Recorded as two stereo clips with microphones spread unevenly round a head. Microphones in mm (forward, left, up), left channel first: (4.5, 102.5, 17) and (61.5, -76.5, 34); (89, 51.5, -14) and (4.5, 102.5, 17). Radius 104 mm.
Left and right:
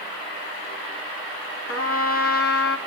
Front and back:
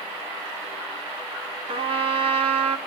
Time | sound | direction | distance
1.7 | a trumpet | 140° left | 1.9 m